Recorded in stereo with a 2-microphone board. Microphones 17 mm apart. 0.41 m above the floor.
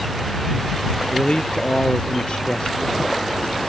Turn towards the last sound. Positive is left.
turn(degrees=70)  # may be behind; listen again after turning